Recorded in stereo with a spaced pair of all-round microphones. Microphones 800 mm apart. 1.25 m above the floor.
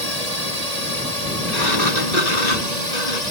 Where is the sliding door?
50° left (ahead or behind).